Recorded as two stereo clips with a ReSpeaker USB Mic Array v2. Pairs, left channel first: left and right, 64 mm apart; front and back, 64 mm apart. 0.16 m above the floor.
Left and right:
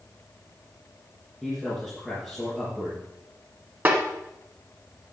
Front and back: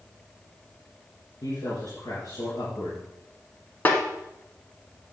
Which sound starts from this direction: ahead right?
A snare drum, at 3.9 s.